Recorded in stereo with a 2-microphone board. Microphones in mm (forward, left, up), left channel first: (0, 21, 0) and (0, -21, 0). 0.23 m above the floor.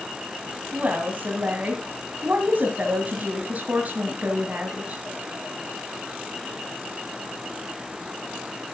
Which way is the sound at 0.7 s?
40° right (ahead or behind).